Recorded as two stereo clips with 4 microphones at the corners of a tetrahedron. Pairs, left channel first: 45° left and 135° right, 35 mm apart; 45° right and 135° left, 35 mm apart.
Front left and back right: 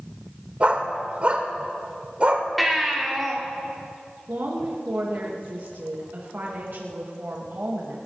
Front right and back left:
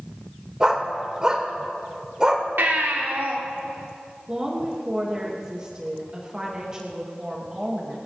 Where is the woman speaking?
155° right, 2 m.